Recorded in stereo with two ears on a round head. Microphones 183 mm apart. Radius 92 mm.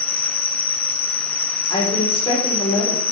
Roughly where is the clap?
I don't hear a clap.